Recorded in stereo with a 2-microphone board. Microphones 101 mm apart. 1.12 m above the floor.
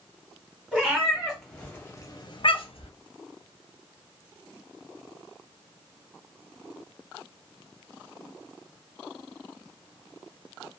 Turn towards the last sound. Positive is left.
turn(degrees=65)  # may be behind; listen again after turning